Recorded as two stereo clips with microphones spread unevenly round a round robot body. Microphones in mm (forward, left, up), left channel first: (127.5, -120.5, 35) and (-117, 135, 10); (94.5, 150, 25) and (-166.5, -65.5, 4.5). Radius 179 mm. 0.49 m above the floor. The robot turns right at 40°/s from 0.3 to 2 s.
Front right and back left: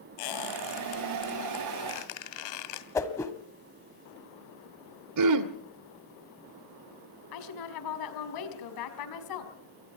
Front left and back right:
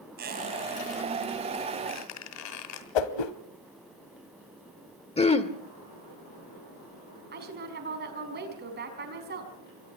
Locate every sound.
0.2 s a squeak: 75° right, 2.5 m; by 2.9 s 10° right, 2.5 m
3.0 s a whoosh: 35° left, 1.5 m
5.2 s throat clearing: 110° left, 1.7 m
7.3 s a woman speaking: 75° right, 4.5 m